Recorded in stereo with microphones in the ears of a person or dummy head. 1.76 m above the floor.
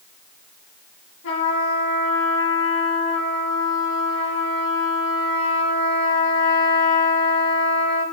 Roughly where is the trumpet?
Left.